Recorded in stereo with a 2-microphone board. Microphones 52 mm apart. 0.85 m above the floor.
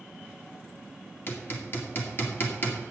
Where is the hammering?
45° left (ahead or behind), 2 m.